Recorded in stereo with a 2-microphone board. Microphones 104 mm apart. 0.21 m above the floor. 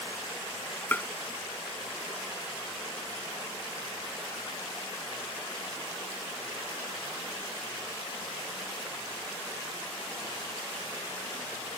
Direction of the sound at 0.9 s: 15° left (ahead or behind).